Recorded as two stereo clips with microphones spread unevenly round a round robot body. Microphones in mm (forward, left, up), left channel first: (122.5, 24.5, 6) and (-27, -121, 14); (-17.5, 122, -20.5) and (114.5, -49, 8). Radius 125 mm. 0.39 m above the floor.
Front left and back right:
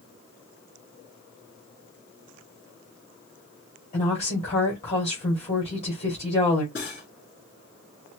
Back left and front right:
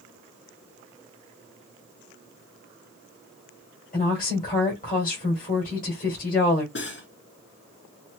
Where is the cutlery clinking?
100° left, 3 m.